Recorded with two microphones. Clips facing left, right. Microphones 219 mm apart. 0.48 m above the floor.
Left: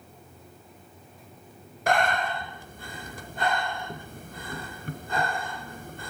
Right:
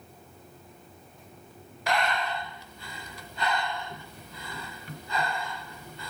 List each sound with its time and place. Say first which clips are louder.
1.9 s breathing: left 4 dB; 50° left (ahead or behind), 1.1 m